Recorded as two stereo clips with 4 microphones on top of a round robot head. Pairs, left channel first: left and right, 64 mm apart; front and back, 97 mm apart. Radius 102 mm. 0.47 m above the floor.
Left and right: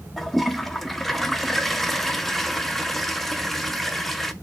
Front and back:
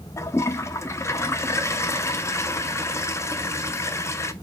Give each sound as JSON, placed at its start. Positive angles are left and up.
{"t": 0.2, "sound": "a toilet flushing", "azimuth_deg": 5, "distance_m": 0.7}